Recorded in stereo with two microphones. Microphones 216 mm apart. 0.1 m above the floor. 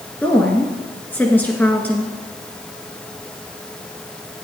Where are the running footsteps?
No running footsteps in this recording.